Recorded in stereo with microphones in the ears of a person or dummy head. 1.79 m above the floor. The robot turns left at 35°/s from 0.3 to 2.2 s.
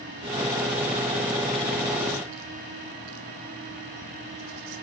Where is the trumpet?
No trumpet in this recording.